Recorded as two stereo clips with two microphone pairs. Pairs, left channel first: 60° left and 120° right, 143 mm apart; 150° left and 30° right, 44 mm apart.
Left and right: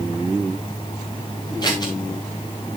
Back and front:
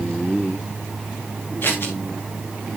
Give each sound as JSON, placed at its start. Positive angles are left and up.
{"t": 1.6, "sound": "scissors", "azimuth_deg": 120, "distance_m": 4.0}